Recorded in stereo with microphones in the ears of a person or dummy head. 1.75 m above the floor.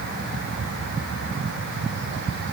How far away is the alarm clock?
No alarm clock in this recording.